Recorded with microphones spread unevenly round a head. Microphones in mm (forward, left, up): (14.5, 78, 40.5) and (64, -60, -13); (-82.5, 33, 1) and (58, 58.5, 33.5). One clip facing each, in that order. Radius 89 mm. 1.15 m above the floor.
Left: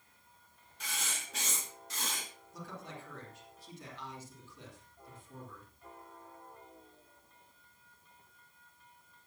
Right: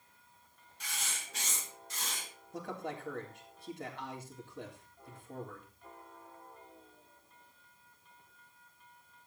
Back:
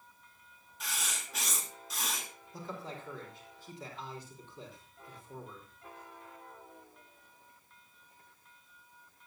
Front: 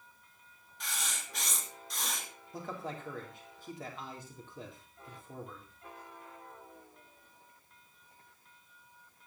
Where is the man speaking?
45° right, 3.5 m.